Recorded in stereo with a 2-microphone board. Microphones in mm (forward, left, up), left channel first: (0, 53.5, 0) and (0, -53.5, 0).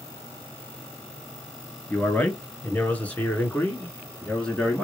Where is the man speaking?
15° left (ahead or behind), 2 m; by 4.8 s 5° left (ahead or behind), 1.8 m.